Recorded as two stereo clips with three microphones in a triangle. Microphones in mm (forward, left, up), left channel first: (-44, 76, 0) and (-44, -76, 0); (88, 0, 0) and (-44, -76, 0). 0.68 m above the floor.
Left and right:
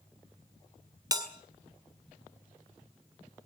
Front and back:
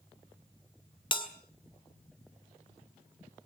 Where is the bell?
30° right, 1.8 m.